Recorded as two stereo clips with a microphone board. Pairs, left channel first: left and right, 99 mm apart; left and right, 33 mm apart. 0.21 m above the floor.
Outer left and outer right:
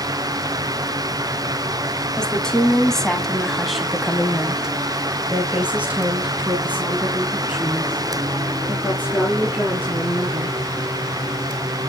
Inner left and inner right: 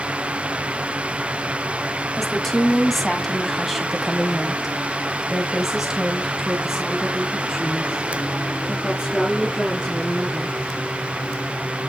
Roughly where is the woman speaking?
Centre.